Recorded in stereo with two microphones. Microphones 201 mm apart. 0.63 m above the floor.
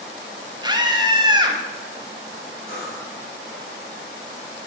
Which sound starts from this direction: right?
A scream, at 0.6 s.